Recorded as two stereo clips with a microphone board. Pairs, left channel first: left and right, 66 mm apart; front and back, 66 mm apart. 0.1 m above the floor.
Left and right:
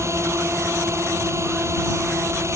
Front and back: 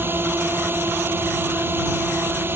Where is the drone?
130° right.